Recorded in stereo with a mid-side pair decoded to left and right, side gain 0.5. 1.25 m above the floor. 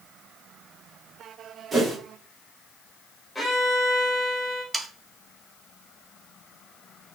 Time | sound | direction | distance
1.7 | a whoosh | 30° right | 2 m
3.4 | a violin | 5° left | 3 m
4.7 | sawing | 20° right | 0.7 m